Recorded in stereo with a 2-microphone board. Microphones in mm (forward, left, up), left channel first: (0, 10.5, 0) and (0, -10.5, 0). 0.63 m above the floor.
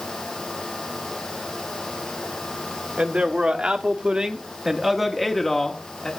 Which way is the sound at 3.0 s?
65° right (ahead or behind).